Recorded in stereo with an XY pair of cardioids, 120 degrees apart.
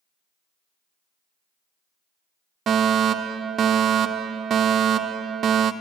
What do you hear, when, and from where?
2.7 s a fire alarm: 45° right, 1.0 m